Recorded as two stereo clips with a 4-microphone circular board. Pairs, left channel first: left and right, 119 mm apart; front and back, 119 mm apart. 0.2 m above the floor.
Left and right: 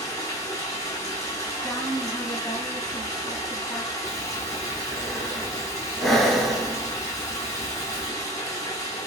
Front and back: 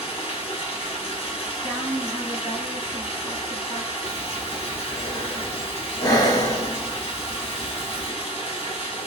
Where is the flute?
I don't hear a flute.